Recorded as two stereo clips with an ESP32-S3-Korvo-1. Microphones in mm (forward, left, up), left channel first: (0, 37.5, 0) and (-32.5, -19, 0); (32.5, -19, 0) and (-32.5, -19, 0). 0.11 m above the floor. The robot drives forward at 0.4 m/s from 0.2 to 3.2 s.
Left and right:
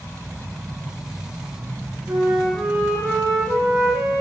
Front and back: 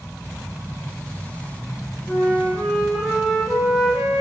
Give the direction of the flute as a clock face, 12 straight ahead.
3 o'clock.